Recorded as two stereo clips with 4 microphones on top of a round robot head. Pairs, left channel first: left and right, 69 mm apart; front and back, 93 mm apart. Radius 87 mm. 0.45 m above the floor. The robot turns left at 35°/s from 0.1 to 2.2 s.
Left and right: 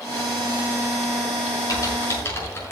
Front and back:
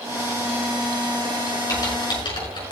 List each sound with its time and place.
1.7 s typing on a keyboard: 55° left, 6 m; by 2.7 s 35° left, 6 m